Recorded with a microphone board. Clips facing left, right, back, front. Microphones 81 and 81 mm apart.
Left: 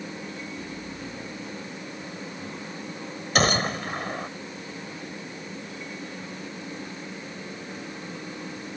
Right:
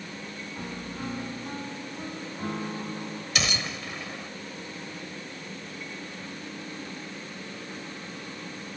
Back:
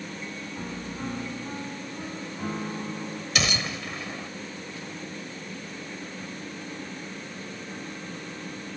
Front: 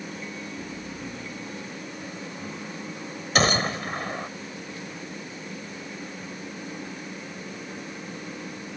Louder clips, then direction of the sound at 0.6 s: Even, back 1 dB; 135° right.